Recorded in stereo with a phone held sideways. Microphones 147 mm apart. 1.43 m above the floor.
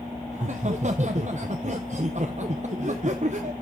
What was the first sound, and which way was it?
Laughter, 55° right (ahead or behind).